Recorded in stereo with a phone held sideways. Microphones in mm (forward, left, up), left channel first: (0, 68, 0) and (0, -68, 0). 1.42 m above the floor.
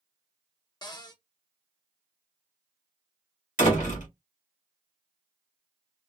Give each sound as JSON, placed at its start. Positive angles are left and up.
{"t": 0.8, "sound": "a cupboard door", "side_deg": 30, "distance_m": 0.6}
{"t": 3.6, "sound": "a door slam", "side_deg": 75, "distance_m": 1.5}